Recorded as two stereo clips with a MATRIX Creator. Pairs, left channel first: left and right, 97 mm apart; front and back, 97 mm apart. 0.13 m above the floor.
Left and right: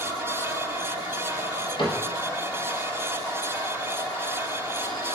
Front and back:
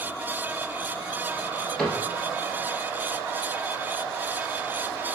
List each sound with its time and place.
1.8 s a cupboard door: 85° left, 1.7 m